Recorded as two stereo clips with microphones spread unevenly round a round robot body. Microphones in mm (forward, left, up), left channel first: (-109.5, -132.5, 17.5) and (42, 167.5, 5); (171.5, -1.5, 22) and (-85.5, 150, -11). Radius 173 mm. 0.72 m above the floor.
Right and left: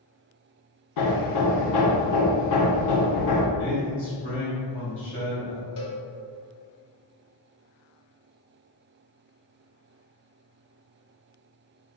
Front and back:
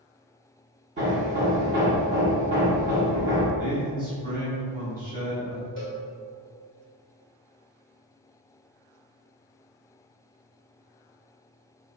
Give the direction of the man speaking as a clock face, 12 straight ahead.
5 o'clock.